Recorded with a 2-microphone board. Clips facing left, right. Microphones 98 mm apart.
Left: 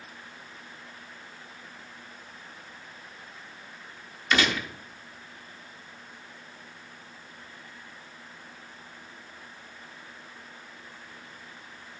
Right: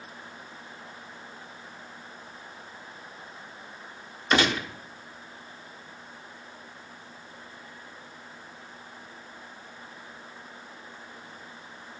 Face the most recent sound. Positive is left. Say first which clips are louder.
# right 2 dB
turn(degrees=-35)  # may be behind; listen again after turning